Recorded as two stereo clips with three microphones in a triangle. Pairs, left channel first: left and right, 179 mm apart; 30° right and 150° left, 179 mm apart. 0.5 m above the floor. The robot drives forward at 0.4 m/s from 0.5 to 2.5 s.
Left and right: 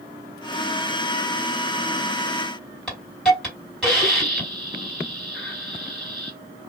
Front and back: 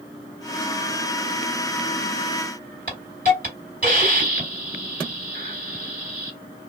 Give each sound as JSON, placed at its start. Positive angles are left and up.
{"t": 2.9, "sound": "a hiss", "azimuth_deg": 175, "distance_m": 1.9}